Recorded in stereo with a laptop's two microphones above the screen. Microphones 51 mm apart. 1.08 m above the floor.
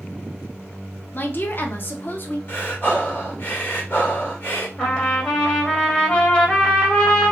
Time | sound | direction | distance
1.1 | a woman speaking | 45° left (ahead or behind) | 0.7 m
2.5 | breathing | 45° left (ahead or behind) | 1.8 m
4.8 | a trumpet | 20° left (ahead or behind) | 1.5 m